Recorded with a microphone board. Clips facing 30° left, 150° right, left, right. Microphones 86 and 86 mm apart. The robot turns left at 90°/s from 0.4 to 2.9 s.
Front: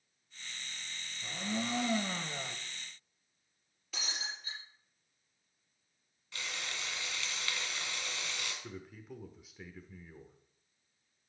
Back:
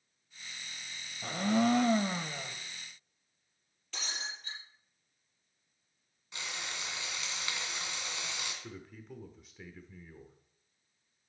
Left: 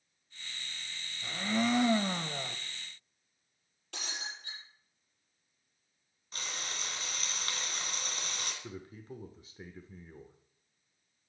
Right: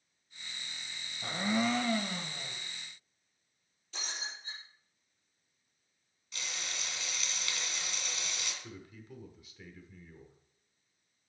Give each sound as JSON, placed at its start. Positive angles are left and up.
{"t": 1.2, "sound": "a blender", "azimuth_deg": -140, "distance_m": 0.8}
{"t": 3.9, "sound": "breaking glass", "azimuth_deg": 115, "distance_m": 6.0}
{"t": 6.3, "sound": "frying", "azimuth_deg": 140, "distance_m": 2.0}
{"t": 8.6, "sound": "a man speaking", "azimuth_deg": 115, "distance_m": 0.9}